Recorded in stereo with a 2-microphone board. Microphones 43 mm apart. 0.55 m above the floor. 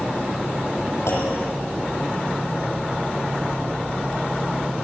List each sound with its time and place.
1.1 s a clunk: 85° left, 8.5 m